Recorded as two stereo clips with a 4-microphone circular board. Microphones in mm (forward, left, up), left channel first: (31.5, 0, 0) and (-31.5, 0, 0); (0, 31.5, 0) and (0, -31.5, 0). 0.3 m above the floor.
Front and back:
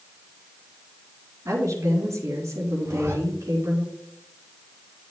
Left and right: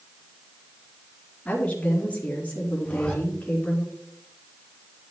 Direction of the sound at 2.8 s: 160° left.